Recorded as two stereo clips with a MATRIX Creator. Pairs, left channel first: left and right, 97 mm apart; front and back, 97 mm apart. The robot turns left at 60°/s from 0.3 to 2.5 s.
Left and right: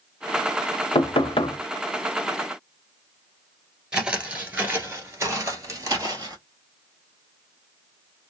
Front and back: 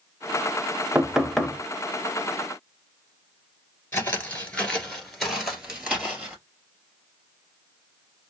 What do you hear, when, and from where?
0.9 s knocking: 105° left, 0.6 m; by 1.6 s 70° left, 0.6 m
3.9 s footsteps: 20° right, 1.4 m; by 6.4 s 115° right, 1.8 m